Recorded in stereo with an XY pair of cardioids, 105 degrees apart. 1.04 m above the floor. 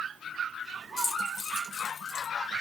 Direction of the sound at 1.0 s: 70° left.